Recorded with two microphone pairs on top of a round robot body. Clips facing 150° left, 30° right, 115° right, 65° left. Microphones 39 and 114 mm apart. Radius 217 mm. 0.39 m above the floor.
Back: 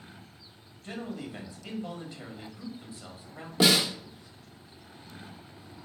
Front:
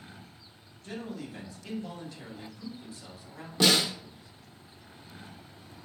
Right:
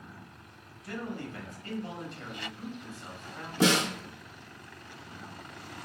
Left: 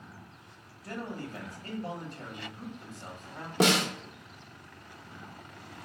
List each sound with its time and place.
0.8 s a man speaking: 95° left, 1.7 m
3.6 s a snare drum: 75° left, 1.2 m